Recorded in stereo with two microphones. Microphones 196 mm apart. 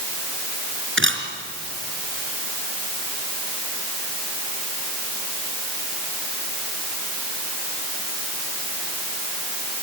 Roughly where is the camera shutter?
Right.